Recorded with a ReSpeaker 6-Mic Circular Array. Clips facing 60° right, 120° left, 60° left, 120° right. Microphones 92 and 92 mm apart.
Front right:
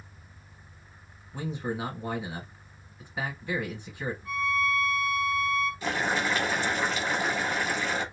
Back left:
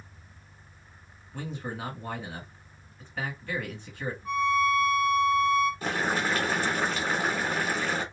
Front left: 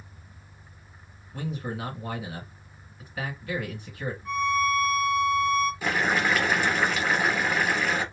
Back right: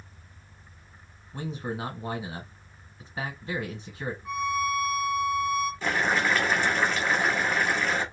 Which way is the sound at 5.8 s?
140° left.